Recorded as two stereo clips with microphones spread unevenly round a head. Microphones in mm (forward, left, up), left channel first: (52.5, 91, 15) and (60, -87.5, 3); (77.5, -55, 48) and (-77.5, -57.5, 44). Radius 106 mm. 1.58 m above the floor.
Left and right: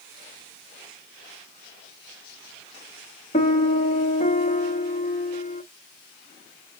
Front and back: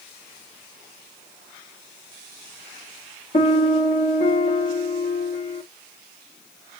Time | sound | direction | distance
3.3 | a piano | 55° left | 0.6 m